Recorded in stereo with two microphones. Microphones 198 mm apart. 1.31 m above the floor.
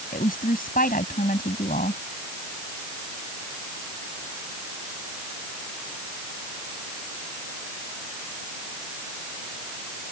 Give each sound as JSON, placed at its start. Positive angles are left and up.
{"t": 0.1, "sound": "a woman speaking", "side_deg": 45}